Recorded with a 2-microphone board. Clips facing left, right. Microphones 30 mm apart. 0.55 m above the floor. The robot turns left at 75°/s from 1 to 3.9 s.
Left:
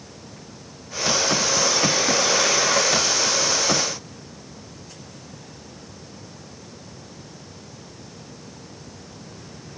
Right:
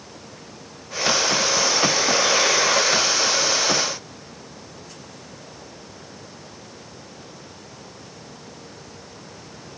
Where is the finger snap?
No finger snap in this recording.